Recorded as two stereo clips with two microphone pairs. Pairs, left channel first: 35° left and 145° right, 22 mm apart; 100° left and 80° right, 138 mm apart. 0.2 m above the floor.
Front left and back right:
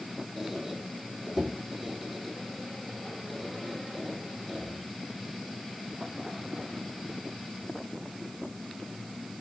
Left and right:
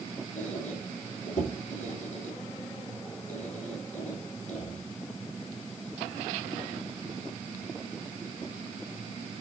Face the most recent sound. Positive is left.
turn(degrees=130)